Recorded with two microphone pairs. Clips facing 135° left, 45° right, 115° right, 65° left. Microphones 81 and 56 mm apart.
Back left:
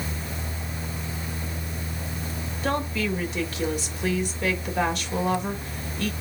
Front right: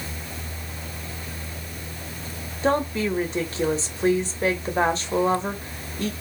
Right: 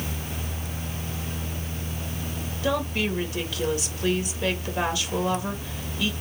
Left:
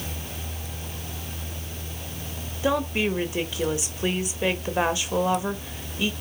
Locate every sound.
2.6 s a woman speaking: straight ahead, 1.3 m